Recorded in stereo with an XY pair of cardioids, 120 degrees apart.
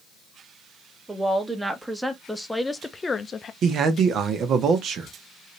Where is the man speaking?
55° right, 1.1 m.